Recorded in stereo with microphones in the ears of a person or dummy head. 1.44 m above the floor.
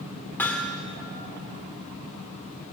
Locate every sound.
0.4 s hammering: 10° left (ahead or behind), 1.4 m